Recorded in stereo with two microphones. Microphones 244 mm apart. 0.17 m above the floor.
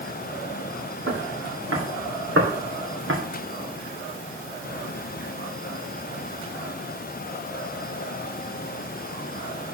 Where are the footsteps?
80° right, 3 m; by 3.2 s 60° right (ahead or behind), 2.5 m.